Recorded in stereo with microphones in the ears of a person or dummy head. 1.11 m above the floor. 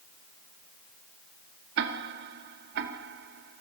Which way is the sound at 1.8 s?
60° right (ahead or behind).